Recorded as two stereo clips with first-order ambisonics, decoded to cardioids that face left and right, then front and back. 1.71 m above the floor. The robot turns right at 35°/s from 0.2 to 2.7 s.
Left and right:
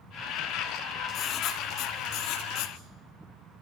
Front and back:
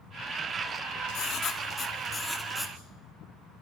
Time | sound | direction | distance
1.1 | writing | 40° left | 2.5 m